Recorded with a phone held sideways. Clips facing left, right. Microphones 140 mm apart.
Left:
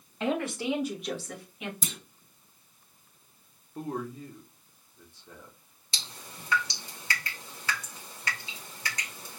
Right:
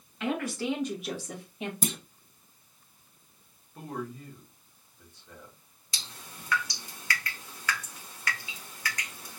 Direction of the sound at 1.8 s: 55° right (ahead or behind).